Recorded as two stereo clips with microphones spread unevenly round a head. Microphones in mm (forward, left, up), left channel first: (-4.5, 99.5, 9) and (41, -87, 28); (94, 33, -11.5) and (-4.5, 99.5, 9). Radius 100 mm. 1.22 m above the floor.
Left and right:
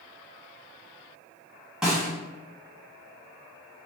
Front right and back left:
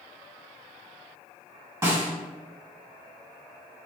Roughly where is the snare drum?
Behind.